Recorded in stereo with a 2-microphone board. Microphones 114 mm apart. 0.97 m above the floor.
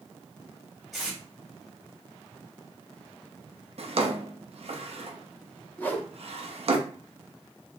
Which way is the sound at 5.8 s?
15° left (ahead or behind).